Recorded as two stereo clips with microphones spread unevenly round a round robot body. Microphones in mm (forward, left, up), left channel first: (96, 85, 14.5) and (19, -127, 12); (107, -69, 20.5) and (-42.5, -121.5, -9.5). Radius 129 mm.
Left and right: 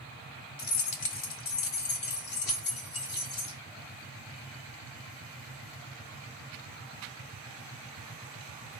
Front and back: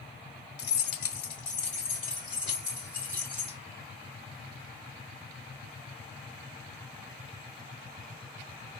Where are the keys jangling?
30° left, 0.9 m; by 3.6 s 110° left, 2 m.